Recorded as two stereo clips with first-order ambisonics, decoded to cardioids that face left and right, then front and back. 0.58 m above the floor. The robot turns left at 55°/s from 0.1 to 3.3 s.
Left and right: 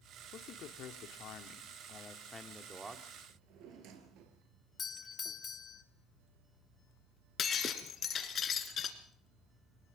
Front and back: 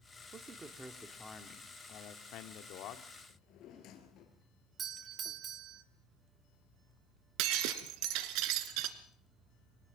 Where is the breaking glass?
155° left, 1.8 m.